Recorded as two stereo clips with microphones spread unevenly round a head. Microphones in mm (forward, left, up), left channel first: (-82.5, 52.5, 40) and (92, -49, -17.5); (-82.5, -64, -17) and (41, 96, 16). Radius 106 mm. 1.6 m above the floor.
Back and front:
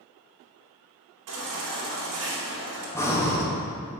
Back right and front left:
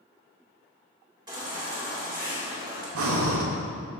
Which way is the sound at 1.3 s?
15° right.